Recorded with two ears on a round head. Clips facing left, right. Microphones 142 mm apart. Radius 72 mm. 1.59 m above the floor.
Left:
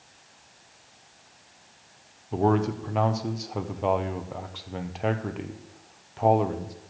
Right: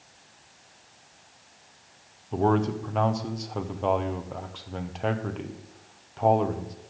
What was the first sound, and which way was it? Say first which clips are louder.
A man speaking: even; 5° left (ahead or behind).